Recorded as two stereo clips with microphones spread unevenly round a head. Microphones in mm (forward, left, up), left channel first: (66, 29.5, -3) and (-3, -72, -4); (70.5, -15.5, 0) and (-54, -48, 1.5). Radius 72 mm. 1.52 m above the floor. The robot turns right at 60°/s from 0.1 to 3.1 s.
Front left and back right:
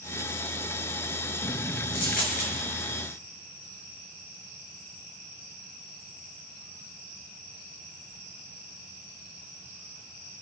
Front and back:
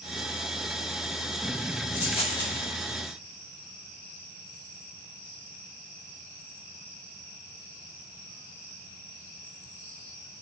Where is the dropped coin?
55° left, 5 m; by 2.5 s 90° left, 5 m.